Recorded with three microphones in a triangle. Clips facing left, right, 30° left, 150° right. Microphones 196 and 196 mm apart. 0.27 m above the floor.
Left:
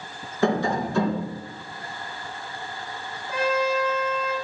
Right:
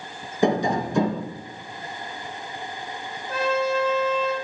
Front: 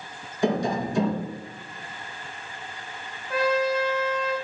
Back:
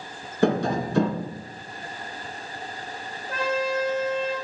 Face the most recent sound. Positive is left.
turn(degrees=165)